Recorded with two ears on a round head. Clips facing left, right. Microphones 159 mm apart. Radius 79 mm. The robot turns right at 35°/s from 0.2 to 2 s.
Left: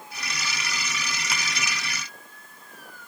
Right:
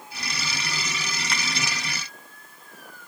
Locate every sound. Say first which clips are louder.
1.3 s a finger snap: right 1 dB; 5° left (ahead or behind), 1.2 m